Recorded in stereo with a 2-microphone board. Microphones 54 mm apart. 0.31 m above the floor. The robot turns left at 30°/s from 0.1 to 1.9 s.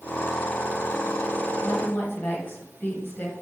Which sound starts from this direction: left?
A woman speaking, at 1.6 s.